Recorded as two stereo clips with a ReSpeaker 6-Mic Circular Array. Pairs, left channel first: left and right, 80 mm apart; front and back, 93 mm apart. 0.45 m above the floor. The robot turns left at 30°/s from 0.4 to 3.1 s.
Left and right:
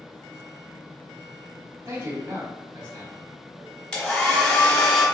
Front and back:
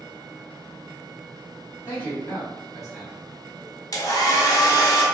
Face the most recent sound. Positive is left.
turn(degrees=10)